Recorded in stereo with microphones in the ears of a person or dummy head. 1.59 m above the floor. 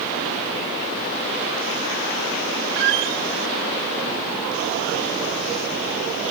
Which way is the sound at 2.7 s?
55° right (ahead or behind).